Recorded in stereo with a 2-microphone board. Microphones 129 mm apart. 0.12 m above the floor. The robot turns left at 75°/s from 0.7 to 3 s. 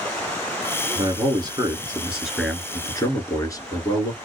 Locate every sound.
0.9 s a man speaking: 85° right, 1.5 m; by 4.2 s 125° left, 1.5 m